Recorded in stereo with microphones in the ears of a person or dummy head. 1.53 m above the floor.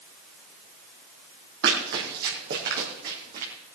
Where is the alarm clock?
I don't hear an alarm clock.